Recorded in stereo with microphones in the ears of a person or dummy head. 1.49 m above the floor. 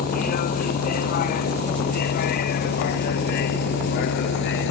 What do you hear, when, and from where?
0.0 s a vehicle: 50° left (ahead or behind); by 4.7 s 65° left (ahead or behind)